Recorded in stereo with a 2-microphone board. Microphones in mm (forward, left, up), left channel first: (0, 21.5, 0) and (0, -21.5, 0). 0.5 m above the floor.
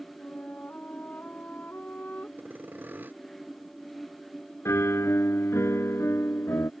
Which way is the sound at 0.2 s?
40° left (ahead or behind).